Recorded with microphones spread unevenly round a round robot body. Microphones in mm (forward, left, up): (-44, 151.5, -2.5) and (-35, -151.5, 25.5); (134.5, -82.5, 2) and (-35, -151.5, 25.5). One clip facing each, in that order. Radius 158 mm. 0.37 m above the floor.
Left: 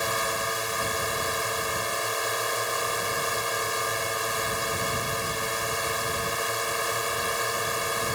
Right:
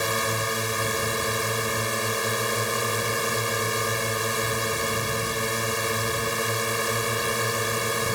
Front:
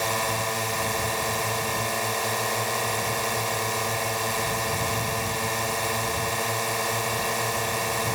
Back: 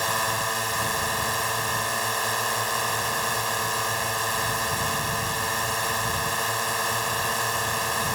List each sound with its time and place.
0.0 s a drone: 45° right